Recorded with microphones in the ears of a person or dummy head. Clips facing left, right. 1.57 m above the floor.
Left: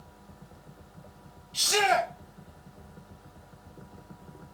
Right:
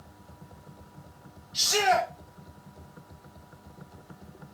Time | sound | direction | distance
1.5 | a shout | 35° left (ahead or behind) | 1.4 m